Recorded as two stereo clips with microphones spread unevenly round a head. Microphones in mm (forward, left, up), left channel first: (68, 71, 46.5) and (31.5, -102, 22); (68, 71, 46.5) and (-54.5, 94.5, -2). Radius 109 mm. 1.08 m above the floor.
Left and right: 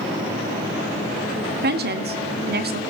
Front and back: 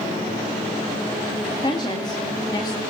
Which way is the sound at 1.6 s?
85° right.